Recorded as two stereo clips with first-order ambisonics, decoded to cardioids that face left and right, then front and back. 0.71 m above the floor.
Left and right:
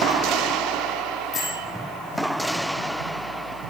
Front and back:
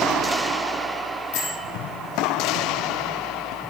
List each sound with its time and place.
1.3 s a bell: 20° left, 5.5 m